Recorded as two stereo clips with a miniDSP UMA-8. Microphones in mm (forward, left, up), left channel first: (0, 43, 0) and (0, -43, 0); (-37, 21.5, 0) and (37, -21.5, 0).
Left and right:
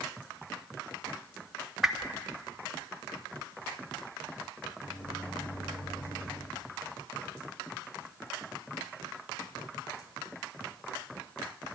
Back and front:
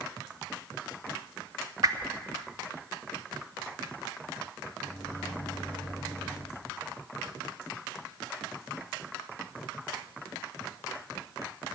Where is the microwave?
75° left, 6 m.